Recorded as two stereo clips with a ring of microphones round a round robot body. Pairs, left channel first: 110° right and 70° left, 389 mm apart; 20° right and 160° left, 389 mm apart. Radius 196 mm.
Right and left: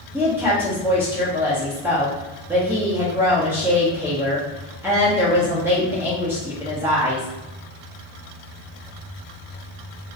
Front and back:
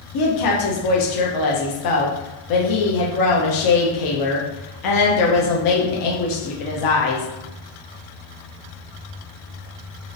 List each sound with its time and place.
0.1 s a woman speaking: 15° right, 0.6 m